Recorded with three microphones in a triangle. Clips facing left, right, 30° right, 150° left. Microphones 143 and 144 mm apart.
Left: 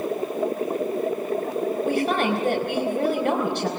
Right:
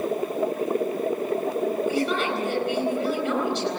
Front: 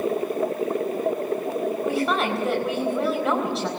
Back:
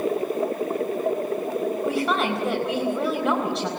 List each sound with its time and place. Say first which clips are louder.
1.8 s a woman speaking: left 2 dB, front 1 dB; 60° left, 4 m